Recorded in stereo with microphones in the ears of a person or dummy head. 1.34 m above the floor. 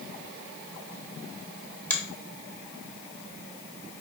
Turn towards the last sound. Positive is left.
turn(degrees=10)  # may be behind; listen again after turning